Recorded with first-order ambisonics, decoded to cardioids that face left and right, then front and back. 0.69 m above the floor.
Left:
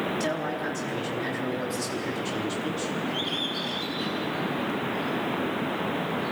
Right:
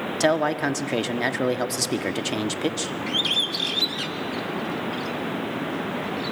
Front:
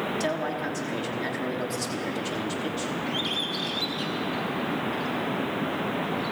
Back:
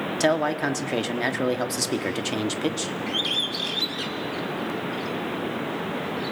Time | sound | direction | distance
0.2 | a man speaking | 125° right | 1.1 m
3.1 | a bird | 105° right | 1.7 m